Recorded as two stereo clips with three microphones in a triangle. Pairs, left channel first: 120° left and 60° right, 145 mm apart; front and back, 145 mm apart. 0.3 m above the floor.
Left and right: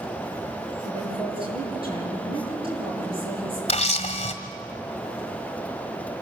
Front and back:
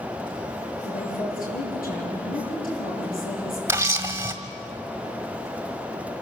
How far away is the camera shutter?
About 1.5 m.